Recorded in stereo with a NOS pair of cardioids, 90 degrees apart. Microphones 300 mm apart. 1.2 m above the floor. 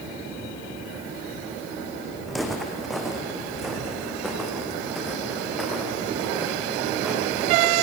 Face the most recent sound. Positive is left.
turn(degrees=0)